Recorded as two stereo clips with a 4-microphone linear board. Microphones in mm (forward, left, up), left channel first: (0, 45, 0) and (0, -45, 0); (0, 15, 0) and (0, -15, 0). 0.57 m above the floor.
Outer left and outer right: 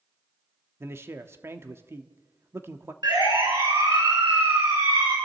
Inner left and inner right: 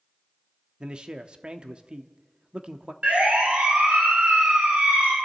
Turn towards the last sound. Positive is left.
turn(degrees=-70)  # may be behind; listen again after turning